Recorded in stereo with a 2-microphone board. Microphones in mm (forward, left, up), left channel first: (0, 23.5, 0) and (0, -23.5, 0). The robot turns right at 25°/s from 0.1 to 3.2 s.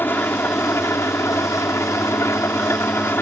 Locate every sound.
0.0 s an engine running: 50° left; by 3.2 s 130° left